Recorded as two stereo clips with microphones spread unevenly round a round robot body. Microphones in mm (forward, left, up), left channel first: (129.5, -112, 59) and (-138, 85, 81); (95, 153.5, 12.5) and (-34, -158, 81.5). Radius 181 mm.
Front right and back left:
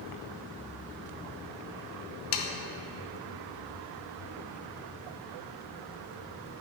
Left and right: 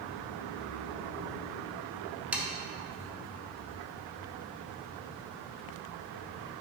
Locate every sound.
2.3 s sawing: 15° right, 0.6 m